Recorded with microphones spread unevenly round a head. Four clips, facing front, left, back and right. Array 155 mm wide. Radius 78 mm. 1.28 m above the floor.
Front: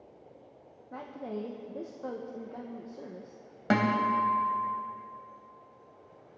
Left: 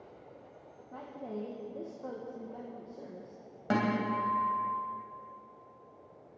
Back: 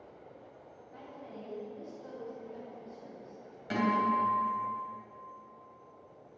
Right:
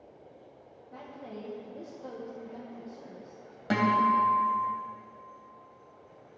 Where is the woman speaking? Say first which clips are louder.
Left 2 dB, front 9 dB; 10° left, 1.2 m.